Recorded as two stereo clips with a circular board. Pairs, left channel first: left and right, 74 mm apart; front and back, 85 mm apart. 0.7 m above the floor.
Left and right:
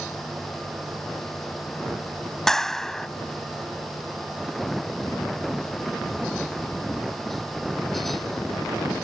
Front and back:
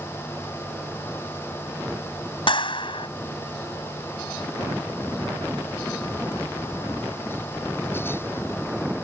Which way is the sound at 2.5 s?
5° left.